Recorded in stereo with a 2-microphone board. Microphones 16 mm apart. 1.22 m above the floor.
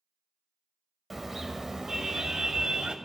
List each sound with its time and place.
1.1 s a car horn: centre (ahead or behind), 2.5 m; by 3.0 s 50° right (ahead or behind), 2.5 m